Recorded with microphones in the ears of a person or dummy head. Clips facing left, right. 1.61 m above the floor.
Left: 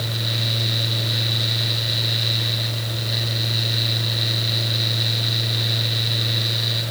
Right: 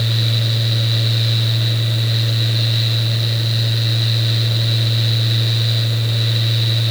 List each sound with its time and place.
Only background noise.